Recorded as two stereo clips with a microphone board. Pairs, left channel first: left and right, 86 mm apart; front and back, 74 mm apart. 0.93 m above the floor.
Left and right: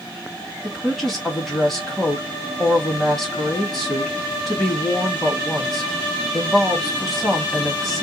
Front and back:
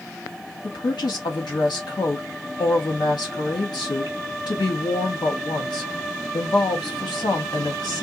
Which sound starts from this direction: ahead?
A woman speaking, at 0.6 s.